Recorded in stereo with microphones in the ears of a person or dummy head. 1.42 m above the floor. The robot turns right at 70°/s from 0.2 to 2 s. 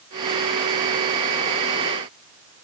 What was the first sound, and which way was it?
Only background noise.